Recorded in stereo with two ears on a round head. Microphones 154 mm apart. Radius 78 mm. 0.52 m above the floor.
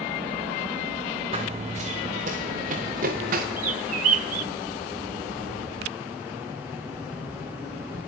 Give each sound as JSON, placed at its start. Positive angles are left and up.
{"t": 1.3, "sound": "running footsteps", "side_deg": -30, "distance_m": 2.5}
{"t": 3.6, "sound": "a bird", "side_deg": -50, "distance_m": 1.7}